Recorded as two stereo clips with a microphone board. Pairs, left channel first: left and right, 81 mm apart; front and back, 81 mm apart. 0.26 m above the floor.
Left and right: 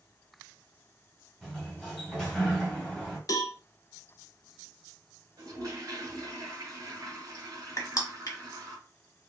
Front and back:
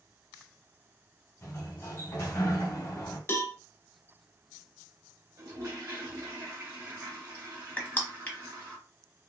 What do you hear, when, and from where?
1.4 s a sliding door: 20° left, 1.7 m
3.3 s a cowbell: 55° left, 0.7 m
5.4 s a toilet flushing: 135° right, 1.9 m
7.8 s crushing: 65° left, 1.1 m